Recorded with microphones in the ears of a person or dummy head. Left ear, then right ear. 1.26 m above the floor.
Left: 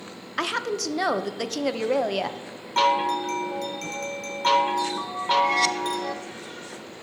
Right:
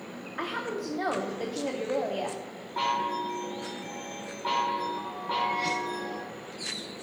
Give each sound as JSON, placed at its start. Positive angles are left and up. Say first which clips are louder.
{"t": 0.4, "sound": "a woman speaking", "louder": "left 7 dB", "side_deg": 85, "distance_m": 0.6}
{"t": 2.8, "sound": "a chime", "louder": "left 7 dB", "side_deg": 75, "distance_m": 0.7}